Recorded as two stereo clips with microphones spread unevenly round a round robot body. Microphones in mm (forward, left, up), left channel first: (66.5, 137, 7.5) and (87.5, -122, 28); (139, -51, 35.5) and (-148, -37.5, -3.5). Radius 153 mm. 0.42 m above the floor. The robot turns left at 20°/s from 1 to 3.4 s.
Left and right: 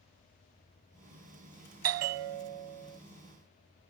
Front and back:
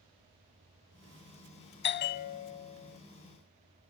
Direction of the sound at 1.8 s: 55° right.